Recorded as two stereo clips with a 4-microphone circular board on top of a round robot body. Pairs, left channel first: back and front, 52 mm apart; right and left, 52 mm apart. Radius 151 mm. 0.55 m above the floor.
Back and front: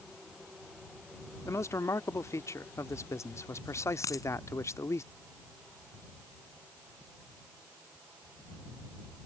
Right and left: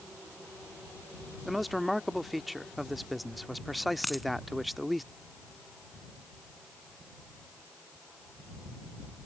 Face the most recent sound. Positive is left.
turn(degrees=180)